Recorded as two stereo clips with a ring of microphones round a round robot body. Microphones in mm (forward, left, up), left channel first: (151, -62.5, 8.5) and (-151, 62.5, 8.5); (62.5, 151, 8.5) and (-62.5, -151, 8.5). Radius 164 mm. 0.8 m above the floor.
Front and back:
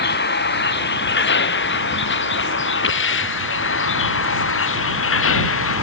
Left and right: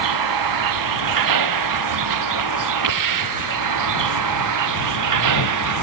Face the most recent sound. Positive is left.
turn(degrees=-75)